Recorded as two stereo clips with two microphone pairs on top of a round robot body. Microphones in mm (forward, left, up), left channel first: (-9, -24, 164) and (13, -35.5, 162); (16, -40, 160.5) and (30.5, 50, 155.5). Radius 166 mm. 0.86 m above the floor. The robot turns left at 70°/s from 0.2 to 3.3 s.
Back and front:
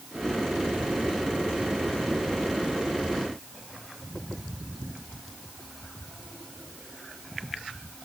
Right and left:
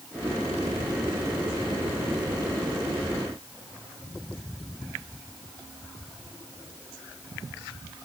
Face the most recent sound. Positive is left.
No sound to turn to.